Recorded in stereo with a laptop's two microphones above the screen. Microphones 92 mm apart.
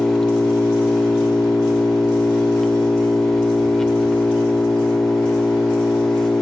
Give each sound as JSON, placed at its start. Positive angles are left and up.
{"t": 0.0, "sound": "an engine running", "side_deg": 5, "distance_m": 1.6}